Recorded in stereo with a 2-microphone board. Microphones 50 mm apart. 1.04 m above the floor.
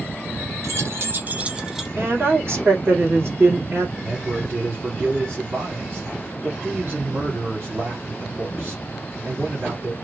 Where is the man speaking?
75° right (ahead or behind), 2.5 m.